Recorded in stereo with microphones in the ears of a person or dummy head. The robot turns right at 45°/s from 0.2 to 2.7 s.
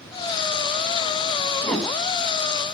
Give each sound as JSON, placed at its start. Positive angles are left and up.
{"t": 1.6, "sound": "a whoosh", "side_deg": 5, "distance_m": 1.7}